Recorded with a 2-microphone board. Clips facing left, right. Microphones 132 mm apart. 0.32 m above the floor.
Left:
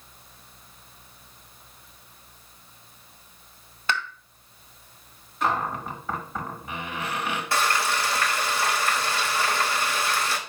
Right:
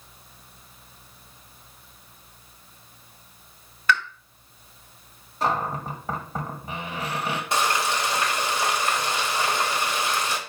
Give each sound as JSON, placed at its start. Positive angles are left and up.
{"t": 3.9, "sound": "a pop", "side_deg": 25, "distance_m": 1.4}
{"t": 5.4, "sound": "a cupboard door", "side_deg": -35, "distance_m": 1.7}
{"t": 7.5, "sound": "frying", "side_deg": -20, "distance_m": 1.2}